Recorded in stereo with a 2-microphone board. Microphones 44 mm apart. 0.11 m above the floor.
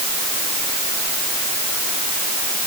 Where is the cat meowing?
No cat meowing in this recording.